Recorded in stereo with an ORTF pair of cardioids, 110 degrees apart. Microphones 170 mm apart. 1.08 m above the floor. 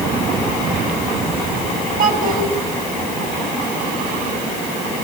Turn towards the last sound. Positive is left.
turn(degrees=-50)